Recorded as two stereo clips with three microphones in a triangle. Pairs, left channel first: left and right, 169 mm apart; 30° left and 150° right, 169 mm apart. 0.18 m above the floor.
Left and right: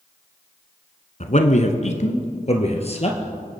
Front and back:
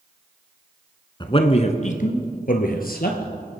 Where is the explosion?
No explosion in this recording.